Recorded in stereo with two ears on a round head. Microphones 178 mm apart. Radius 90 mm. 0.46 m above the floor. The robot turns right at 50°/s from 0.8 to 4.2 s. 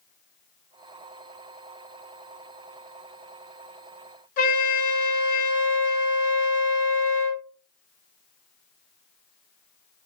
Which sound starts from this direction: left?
A trumpet, at 4.4 s.